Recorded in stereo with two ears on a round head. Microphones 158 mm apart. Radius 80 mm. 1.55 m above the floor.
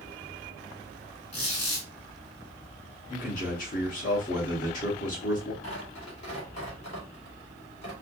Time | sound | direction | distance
1.3 | a squeak | 35° left (ahead or behind) | 2.5 m
3.1 | a man speaking | 45° left (ahead or behind) | 2 m
5.6 | tearing paper | 40° left (ahead or behind) | 2.5 m